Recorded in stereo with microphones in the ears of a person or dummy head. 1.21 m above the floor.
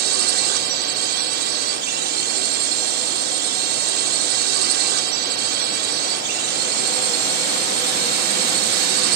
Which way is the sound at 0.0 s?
55° right (ahead or behind).